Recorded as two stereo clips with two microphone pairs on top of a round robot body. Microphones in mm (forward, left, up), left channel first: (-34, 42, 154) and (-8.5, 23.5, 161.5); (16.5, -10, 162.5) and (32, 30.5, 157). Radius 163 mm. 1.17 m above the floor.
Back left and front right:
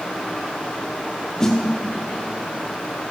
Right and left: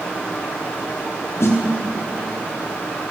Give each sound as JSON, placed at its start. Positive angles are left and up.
{"t": 1.4, "sound": "a snare drum", "azimuth_deg": -140, "distance_m": 1.6}